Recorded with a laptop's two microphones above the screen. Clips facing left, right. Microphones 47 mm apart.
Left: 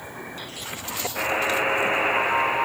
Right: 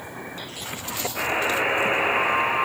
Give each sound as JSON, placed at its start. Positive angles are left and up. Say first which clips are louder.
{"t": 1.1, "sound": "a buzzer", "louder": "even", "side_deg": 0, "distance_m": 7.0}